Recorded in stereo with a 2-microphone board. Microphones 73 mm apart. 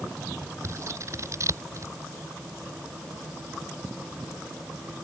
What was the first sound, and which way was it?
Scissors, 45° right (ahead or behind).